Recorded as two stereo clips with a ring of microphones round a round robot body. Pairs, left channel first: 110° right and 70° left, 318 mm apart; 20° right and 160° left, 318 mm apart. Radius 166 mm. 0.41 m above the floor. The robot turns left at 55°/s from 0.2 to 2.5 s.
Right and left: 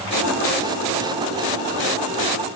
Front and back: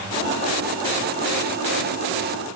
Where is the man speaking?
No man speaking in this recording.